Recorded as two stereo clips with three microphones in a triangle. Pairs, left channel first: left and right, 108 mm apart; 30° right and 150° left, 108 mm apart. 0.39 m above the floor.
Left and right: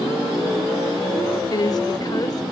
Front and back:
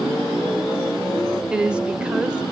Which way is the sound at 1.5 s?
75° left.